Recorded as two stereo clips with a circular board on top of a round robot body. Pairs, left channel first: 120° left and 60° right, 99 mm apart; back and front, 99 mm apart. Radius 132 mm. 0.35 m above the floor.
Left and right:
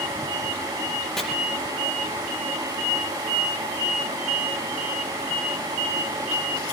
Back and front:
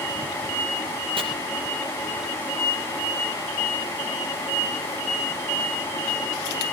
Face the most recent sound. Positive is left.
turn(degrees=35)